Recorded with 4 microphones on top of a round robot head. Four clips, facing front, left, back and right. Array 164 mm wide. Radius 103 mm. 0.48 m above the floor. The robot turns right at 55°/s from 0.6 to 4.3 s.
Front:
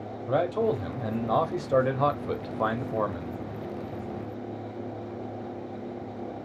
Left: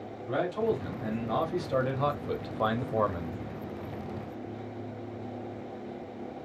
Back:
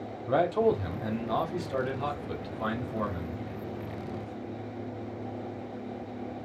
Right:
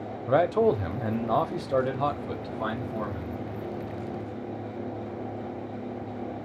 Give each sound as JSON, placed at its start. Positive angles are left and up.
{"t": 0.3, "sound": "a man speaking", "azimuth_deg": -90, "distance_m": 1.0}